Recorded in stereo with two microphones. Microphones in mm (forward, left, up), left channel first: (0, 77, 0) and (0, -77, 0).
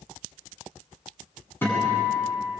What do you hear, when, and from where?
1.6 s a guitar: 15° left (ahead or behind), 8 m